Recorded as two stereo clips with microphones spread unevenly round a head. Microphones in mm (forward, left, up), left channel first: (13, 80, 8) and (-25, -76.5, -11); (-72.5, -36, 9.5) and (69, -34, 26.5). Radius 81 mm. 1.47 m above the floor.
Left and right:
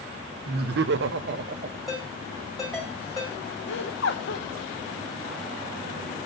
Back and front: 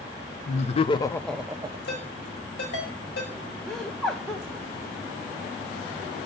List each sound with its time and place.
0.5 s laughter: 140° right, 0.8 m; by 1.8 s 45° right, 0.5 m
1.9 s a ringtone: 165° left, 5.5 m
3.7 s laughter: 90° left, 1.1 m